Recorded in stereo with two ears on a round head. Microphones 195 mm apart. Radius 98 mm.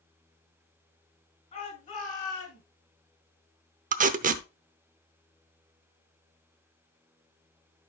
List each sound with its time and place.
1.5 s a shout: 30° left (ahead or behind), 6.5 m; by 2.6 s 40° left (ahead or behind), 6 m
3.9 s tape being pulled: 40° right (ahead or behind), 0.7 m